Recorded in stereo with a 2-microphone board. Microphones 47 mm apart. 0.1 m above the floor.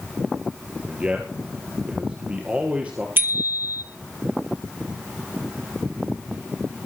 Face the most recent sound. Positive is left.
turn(degrees=-45)  # may be behind; listen again after turning